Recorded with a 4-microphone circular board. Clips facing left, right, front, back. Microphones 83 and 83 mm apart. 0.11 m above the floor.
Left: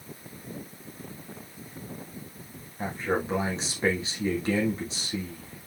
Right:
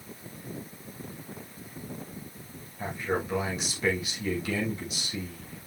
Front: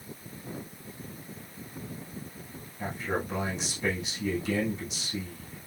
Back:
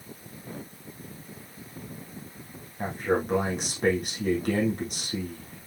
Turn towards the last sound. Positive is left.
turn(degrees=150)